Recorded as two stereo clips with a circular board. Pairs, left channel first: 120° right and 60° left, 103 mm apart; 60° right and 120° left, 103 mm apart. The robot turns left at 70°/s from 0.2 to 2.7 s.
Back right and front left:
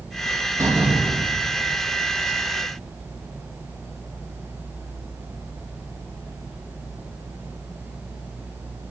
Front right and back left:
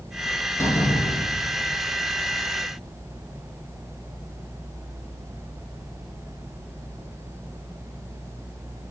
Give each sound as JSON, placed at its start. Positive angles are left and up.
{"t": 0.6, "sound": "a door slam", "azimuth_deg": 5, "distance_m": 5.5}